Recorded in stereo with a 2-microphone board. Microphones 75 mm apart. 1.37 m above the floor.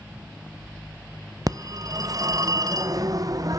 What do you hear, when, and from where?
1.5 s a phone ringing: 50° right (ahead or behind), 0.6 m